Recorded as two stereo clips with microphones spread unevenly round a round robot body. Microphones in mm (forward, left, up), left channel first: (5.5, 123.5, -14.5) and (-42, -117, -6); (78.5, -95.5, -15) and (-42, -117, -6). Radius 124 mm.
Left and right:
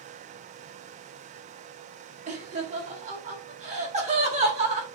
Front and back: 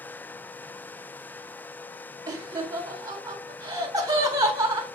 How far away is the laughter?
About 1.4 m.